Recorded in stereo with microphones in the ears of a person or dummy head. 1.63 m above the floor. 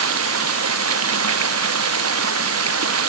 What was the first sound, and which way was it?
Running water, 85° right.